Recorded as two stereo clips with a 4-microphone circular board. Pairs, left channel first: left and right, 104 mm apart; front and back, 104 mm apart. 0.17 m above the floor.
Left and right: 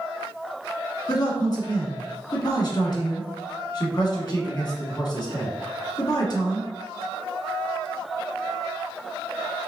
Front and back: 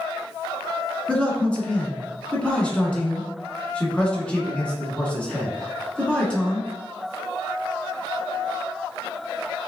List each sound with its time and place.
1.1 s a man speaking: 75° left, 1.6 m